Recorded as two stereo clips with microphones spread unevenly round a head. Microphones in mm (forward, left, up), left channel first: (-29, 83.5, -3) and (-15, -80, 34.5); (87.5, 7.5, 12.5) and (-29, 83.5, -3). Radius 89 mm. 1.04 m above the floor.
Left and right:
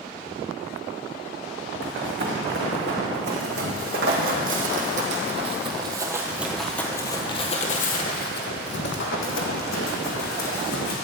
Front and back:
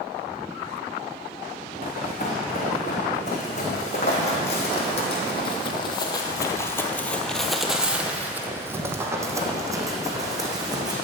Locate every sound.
1.8 s running footsteps: 80° right, 3.5 m; by 10.9 s 80° left, 3 m